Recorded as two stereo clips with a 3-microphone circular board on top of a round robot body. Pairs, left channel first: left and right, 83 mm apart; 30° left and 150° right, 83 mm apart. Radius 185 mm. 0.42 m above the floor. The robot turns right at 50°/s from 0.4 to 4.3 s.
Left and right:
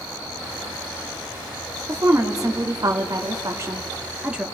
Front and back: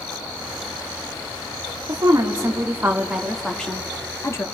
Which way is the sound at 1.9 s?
135° right.